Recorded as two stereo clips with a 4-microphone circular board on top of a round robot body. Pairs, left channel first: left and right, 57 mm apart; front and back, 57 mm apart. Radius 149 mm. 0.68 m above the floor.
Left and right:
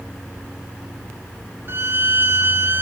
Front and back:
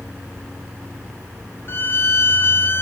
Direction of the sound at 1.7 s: 45° right.